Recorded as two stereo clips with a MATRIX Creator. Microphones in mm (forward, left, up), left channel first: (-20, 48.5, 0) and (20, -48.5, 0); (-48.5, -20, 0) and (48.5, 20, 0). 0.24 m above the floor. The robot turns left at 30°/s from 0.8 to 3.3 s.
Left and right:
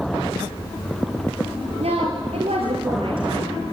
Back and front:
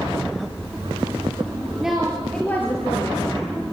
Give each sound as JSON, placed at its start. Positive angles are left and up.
{"t": 1.8, "sound": "a woman speaking", "azimuth_deg": -60, "distance_m": 4.0}